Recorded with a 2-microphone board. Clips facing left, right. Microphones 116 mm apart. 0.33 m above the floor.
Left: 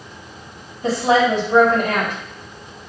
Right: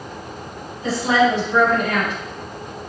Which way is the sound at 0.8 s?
60° left (ahead or behind).